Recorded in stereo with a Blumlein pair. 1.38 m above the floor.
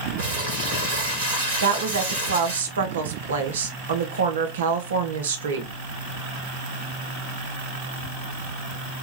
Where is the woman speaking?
65° right, 0.8 m.